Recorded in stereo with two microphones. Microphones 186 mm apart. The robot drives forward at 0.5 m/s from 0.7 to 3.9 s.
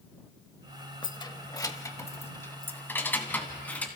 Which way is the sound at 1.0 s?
25° left (ahead or behind).